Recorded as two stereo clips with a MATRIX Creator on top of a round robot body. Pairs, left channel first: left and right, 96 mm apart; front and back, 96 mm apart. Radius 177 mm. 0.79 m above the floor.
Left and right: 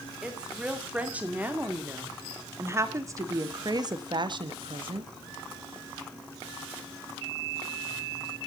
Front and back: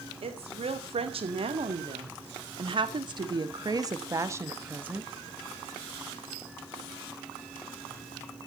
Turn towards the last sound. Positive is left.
turn(degrees=-105)